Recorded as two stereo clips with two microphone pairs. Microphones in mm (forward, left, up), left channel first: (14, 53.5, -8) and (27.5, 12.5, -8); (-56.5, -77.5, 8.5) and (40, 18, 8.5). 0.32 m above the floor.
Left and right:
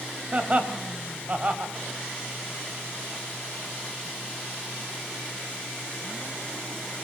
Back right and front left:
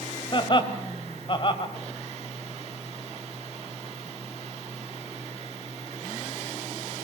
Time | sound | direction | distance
0.3 | laughter | 105° right | 2 m